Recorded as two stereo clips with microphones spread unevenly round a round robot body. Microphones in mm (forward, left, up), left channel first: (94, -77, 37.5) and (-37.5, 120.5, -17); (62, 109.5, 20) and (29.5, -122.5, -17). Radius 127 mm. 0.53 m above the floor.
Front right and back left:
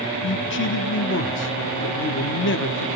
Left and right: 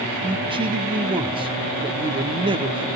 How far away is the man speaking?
About 0.7 m.